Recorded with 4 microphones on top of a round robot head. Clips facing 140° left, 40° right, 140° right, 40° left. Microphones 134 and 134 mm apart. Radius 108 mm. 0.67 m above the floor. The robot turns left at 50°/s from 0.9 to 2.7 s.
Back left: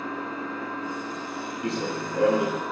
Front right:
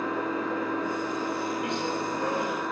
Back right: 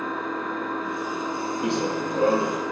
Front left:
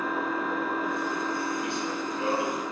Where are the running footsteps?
160° right, 1.1 m; by 2.6 s 150° left, 1.1 m.